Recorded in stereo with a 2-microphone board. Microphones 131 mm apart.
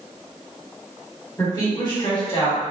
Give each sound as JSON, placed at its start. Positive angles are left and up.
{"t": 1.4, "sound": "a woman speaking", "side_deg": 25, "distance_m": 1.0}